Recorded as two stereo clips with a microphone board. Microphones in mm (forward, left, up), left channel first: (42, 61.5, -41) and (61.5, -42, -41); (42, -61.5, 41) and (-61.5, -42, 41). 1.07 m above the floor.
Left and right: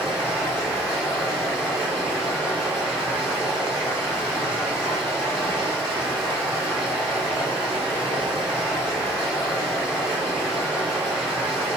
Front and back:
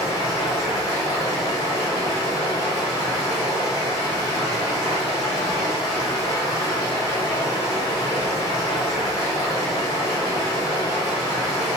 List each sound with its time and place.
0.0 s running water: 35° left, 1.9 m